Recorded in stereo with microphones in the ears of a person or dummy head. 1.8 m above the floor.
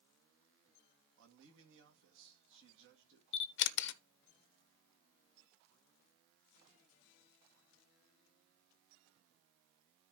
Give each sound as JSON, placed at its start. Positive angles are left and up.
{"t": 1.2, "sound": "a man speaking", "side_deg": -70, "distance_m": 2.5}
{"t": 3.3, "sound": "a camera shutter", "side_deg": 60, "distance_m": 0.6}